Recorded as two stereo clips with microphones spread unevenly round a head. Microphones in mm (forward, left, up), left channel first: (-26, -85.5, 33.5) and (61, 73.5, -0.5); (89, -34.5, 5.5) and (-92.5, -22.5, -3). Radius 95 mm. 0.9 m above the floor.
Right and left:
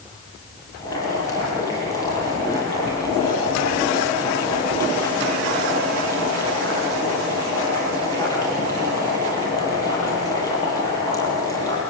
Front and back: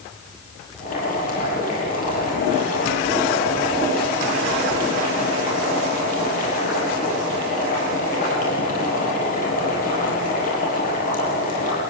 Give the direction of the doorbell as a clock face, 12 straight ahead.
I don't hear a doorbell.